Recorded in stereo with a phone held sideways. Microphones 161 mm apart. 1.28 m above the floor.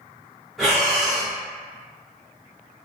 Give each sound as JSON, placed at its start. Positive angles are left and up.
{"t": 0.6, "sound": "breathing", "side_deg": 0, "distance_m": 0.9}